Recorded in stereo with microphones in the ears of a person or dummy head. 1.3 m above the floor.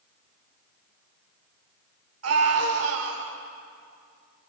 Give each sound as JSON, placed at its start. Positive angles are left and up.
{"t": 2.2, "sound": "a scream", "side_deg": -80, "distance_m": 5.0}